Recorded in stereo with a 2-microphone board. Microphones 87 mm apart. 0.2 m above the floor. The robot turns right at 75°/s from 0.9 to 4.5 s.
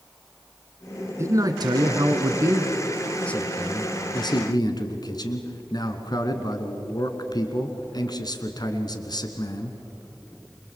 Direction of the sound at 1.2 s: 140° right.